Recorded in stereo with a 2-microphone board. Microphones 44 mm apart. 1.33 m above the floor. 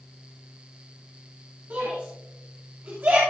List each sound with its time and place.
1.7 s a shout: 55° right (ahead or behind), 3 m